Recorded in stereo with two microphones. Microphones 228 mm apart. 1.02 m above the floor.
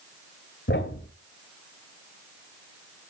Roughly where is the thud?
Left.